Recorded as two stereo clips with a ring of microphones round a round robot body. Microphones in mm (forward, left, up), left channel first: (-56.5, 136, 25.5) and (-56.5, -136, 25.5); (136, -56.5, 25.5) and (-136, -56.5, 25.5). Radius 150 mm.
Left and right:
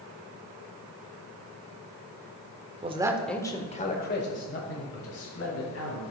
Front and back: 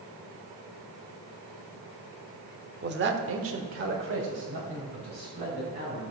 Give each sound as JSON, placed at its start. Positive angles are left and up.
{"t": 2.8, "sound": "a man speaking", "azimuth_deg": -145, "distance_m": 1.0}